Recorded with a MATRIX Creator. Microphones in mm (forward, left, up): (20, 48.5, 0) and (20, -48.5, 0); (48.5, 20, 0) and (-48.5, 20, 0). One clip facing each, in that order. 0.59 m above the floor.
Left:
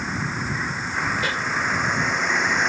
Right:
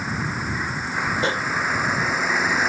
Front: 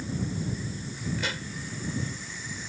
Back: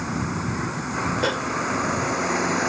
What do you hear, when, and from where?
0.0 s a vehicle: 175° right
1.2 s a pop: 150° right